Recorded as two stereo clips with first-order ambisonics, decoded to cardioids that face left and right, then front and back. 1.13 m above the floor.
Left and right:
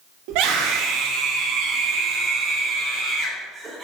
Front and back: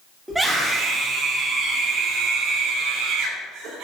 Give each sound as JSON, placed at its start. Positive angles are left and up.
{"t": 0.3, "sound": "a scream", "azimuth_deg": -95, "distance_m": 1.8}